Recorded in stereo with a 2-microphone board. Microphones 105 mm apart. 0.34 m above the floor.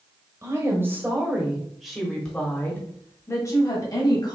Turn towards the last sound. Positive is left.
turn(degrees=40)  # may be behind; listen again after turning